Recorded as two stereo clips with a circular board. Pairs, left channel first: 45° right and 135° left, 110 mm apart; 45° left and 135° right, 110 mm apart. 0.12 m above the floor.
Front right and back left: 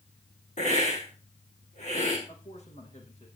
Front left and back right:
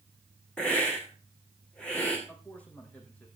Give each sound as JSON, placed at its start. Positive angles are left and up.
{"t": 0.6, "sound": "a hiss", "azimuth_deg": -35, "distance_m": 4.5}
{"t": 2.3, "sound": "a man speaking", "azimuth_deg": -30, "distance_m": 5.0}